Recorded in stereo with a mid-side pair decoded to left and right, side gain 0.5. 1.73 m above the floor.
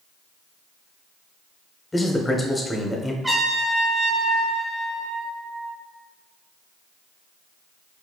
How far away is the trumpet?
About 1.7 m.